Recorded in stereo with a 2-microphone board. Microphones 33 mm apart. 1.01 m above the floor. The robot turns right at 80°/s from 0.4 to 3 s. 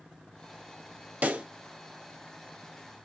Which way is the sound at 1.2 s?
55° right (ahead or behind).